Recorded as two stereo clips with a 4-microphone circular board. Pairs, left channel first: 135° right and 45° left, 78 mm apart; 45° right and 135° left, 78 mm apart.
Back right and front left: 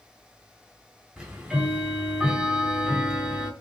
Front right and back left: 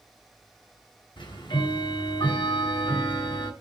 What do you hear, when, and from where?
1.2 s ticking: 40° right, 4 m